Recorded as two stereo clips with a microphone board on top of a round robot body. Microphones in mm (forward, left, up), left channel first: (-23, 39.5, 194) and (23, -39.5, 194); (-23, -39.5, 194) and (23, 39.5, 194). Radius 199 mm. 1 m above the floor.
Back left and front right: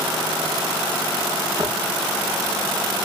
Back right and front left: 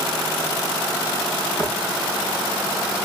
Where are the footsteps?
65° right, 4.5 m.